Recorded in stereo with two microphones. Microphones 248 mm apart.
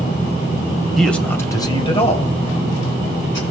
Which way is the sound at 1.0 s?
Centre (ahead or behind).